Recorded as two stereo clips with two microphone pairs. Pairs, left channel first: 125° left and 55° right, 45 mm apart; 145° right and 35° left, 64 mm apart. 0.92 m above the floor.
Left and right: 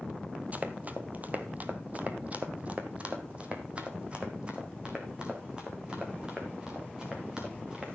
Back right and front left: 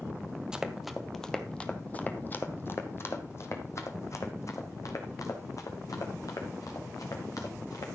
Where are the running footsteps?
35° right, 1.1 m; by 7.8 s 125° right, 4 m.